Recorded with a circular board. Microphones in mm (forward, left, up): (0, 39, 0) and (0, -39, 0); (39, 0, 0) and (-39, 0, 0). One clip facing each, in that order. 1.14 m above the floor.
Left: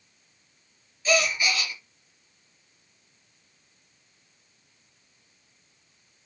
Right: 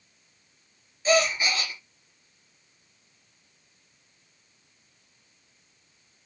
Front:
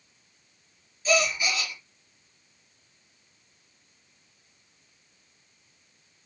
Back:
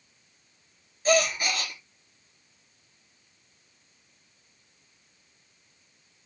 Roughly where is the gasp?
Behind right.